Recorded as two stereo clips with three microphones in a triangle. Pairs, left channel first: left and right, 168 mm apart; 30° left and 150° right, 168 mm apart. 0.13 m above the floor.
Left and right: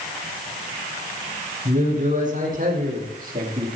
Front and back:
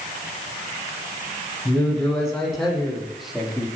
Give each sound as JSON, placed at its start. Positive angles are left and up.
{"t": 1.6, "sound": "a man speaking", "azimuth_deg": -55, "distance_m": 7.0}